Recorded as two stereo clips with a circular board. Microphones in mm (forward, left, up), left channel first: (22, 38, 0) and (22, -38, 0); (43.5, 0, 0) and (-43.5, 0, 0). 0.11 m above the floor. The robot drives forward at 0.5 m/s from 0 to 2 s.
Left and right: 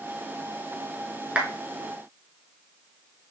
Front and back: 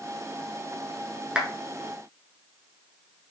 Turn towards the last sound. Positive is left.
turn(degrees=-150)